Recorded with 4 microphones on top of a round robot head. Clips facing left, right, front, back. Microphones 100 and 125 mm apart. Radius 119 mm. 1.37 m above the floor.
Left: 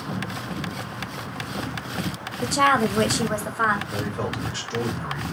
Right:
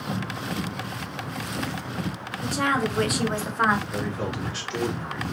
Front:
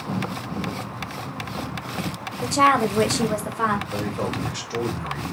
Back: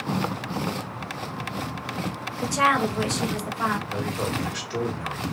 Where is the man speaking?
40° left, 1.8 m.